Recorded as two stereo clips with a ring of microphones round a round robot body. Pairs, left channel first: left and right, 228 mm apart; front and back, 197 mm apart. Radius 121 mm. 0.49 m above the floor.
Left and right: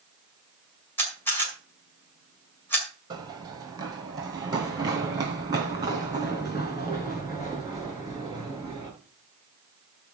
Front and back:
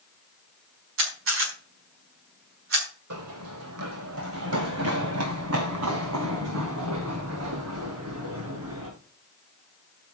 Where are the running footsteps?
165° right, 1.2 m.